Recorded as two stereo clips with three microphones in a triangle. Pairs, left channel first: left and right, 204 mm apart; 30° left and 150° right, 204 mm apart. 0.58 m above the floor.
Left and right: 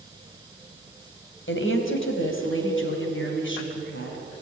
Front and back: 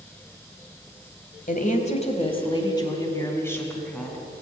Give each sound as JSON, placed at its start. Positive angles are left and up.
{"t": 1.5, "sound": "a woman speaking", "azimuth_deg": 75, "distance_m": 3.0}